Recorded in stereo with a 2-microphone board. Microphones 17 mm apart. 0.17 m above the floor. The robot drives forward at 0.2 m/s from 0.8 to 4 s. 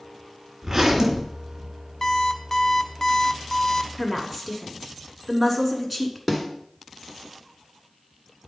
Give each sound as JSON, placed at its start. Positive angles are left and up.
{"t": 0.6, "sound": "a zipper", "side_deg": -40, "distance_m": 1.6}
{"t": 2.0, "sound": "an alarm clock", "side_deg": 20, "distance_m": 0.9}
{"t": 4.0, "sound": "a woman speaking", "side_deg": -15, "distance_m": 1.5}
{"t": 6.3, "sound": "a snare drum", "side_deg": -15, "distance_m": 1.6}